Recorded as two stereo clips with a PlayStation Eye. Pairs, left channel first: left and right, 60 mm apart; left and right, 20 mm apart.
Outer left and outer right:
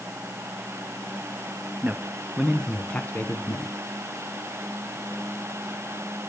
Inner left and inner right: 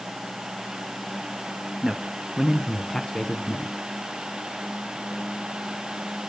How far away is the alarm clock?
No alarm clock in this recording.